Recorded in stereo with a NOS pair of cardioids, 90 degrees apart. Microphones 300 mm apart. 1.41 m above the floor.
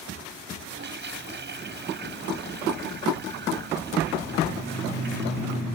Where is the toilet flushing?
35° right.